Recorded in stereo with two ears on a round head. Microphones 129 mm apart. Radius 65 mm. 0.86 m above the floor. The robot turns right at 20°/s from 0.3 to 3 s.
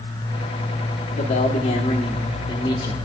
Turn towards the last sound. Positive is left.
turn(degrees=150)